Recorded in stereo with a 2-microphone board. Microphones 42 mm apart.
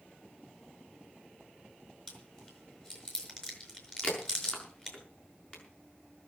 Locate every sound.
2.1 s chewing: 20° left (ahead or behind), 5.5 m
4.0 s a crack: 25° left (ahead or behind), 6.5 m